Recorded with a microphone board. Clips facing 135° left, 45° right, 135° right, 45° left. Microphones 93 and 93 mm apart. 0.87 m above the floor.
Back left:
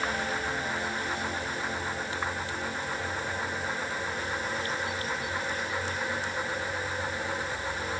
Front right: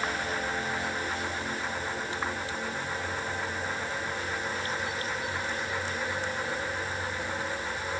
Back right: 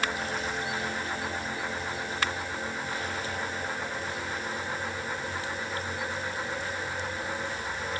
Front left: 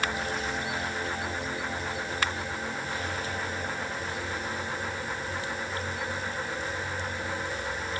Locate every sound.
Only background noise.